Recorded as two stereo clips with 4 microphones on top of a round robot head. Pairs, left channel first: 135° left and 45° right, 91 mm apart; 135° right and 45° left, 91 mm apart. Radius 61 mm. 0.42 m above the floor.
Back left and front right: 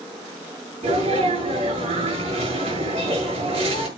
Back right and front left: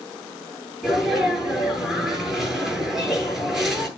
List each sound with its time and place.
0.8 s a sneeze: 45° right, 7 m